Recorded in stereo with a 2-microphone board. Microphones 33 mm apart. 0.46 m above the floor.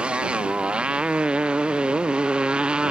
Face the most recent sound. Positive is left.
turn(degrees=-30)  # may be behind; listen again after turning